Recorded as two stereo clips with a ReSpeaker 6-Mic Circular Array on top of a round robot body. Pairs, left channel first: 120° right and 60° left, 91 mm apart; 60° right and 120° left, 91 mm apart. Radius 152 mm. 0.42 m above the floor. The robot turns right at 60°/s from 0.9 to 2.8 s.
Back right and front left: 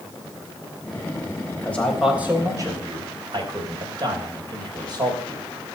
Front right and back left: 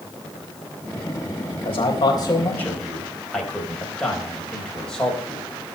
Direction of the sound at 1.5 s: 60° right.